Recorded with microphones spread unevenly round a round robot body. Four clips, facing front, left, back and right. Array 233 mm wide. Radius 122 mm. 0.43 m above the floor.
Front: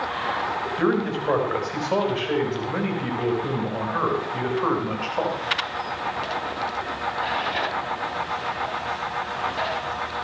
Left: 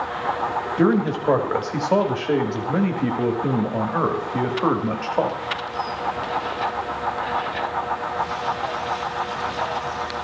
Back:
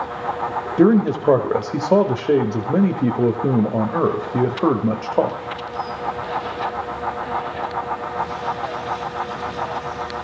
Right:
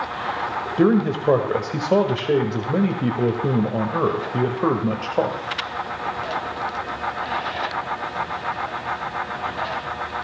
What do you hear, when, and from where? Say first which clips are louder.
0.8 s a man speaking: right 2 dB, back 9 dB; 165° right, 1.5 m